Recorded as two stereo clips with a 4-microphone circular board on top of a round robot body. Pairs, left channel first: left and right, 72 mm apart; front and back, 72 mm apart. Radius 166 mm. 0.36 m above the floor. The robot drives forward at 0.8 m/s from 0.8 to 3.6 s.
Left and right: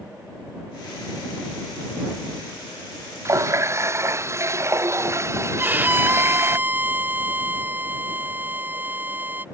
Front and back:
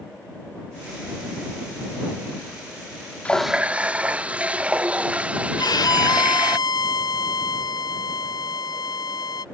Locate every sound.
3.2 s a running tap: 65° right; by 6.6 s 115° right
5.6 s a violin: 25° right